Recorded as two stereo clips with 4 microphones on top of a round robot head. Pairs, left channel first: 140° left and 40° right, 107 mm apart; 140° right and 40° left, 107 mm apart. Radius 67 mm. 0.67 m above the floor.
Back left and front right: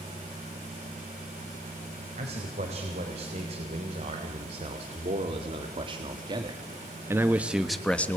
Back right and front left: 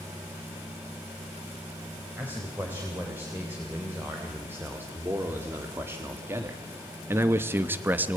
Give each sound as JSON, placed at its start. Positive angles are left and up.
{"t": 2.2, "sound": "a man speaking", "azimuth_deg": -30, "distance_m": 4.5}